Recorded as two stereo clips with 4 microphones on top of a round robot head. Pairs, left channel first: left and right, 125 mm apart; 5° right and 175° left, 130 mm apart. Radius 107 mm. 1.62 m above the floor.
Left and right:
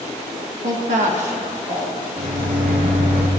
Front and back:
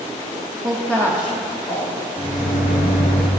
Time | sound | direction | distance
0.6 | a woman speaking | 110° right | 1.0 m
2.2 | a microwave | 65° right | 0.8 m